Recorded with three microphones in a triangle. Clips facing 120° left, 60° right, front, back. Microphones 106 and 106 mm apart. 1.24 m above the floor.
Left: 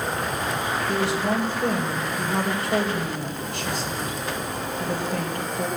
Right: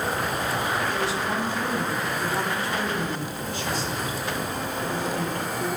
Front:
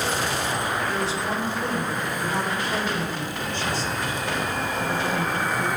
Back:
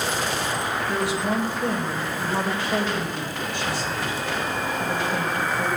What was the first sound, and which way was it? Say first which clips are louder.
A woman speaking: left 3 dB, back 2 dB; 100° left.